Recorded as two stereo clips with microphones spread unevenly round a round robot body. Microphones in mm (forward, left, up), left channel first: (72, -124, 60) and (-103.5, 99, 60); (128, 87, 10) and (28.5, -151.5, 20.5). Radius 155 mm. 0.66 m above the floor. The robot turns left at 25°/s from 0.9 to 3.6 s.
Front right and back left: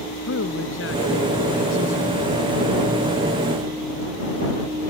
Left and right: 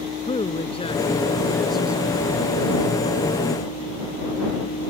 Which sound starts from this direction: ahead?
A man speaking, at 0.3 s.